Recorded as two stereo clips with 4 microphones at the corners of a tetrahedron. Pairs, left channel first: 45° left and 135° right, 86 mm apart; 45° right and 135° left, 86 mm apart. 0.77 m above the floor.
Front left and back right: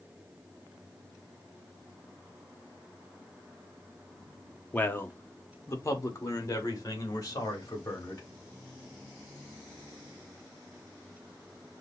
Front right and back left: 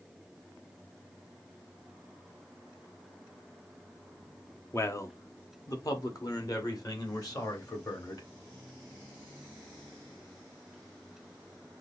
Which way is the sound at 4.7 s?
15° right.